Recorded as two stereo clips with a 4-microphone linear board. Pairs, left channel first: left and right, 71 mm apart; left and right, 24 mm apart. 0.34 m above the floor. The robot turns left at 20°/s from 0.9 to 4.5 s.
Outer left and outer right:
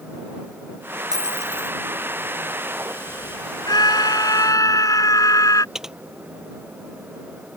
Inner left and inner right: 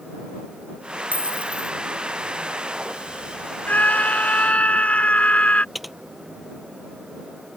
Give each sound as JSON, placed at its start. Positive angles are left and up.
{"t": 1.1, "sound": "a dropped coin", "side_deg": -65}
{"t": 3.7, "sound": "a scream", "side_deg": 70}
{"t": 5.8, "sound": "typing on a keyboard", "side_deg": -5}